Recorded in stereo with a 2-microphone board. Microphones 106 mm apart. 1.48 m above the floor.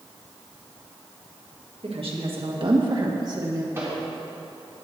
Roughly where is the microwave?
Right.